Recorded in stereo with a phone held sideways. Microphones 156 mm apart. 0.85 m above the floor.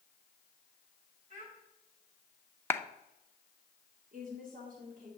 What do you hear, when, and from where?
1.3 s a child speaking: 50° right (ahead or behind), 3 m
2.7 s a clap: 15° left (ahead or behind), 0.6 m
4.1 s a woman speaking: 55° right (ahead or behind), 2 m